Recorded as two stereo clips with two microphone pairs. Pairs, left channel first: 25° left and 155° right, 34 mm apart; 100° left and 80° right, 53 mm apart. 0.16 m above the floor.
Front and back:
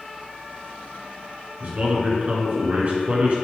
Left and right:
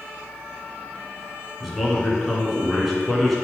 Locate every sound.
1.6 s a man speaking: 165° right, 2 m